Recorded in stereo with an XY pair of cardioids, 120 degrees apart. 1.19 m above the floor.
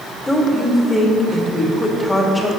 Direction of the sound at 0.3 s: 15° left.